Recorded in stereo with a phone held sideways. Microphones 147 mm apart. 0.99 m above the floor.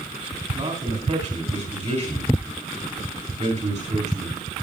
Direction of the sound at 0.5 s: 50° right (ahead or behind).